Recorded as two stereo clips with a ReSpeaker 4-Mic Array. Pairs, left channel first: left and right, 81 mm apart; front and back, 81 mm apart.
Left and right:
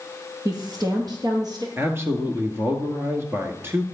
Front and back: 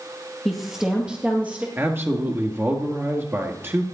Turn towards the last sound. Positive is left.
turn(degrees=-135)